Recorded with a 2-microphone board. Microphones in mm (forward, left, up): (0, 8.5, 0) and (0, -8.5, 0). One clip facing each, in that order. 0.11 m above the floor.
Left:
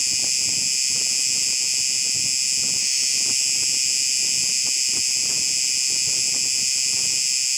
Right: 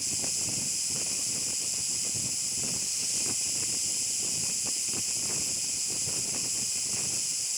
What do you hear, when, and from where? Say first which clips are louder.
0.0 s an insect: left 10 dB; 85° left, 0.7 m